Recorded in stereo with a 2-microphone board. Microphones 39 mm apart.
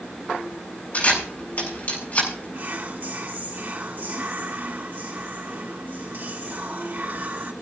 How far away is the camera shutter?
About 7.5 m.